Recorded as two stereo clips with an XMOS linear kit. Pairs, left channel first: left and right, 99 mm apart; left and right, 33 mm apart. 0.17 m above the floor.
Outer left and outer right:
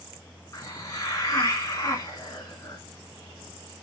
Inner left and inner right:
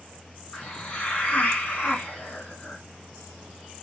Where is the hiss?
35° left (ahead or behind), 1.7 m.